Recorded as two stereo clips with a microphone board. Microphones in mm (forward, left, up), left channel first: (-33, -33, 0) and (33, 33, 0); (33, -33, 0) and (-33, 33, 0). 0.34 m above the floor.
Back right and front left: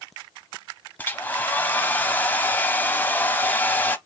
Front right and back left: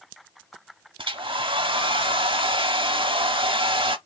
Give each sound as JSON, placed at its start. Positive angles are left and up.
{"t": 1.0, "sound": "a hair dryer", "azimuth_deg": 155, "distance_m": 0.6}